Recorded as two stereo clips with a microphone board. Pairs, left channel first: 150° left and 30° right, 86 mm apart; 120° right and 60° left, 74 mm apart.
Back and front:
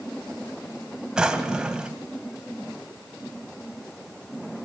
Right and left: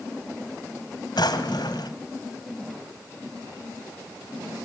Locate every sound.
1.2 s a drawer: 110° right, 1.8 m